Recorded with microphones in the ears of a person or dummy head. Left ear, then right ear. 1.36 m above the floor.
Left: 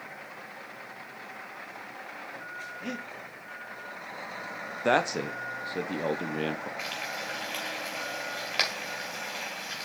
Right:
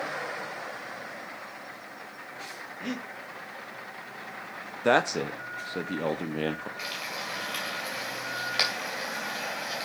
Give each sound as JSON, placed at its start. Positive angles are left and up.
{"t": 2.8, "sound": "breathing", "side_deg": 5, "distance_m": 1.7}
{"t": 4.8, "sound": "a man speaking", "side_deg": 0, "distance_m": 0.6}
{"t": 6.8, "sound": "frying", "side_deg": 10, "distance_m": 3.0}